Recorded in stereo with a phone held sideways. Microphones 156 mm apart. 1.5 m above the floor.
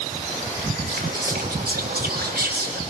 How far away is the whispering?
About 2.5 m.